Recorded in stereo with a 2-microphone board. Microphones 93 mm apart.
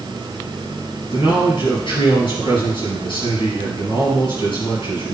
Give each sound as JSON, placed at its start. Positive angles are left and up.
{"t": 1.1, "sound": "a man speaking", "side_deg": 60, "distance_m": 4.5}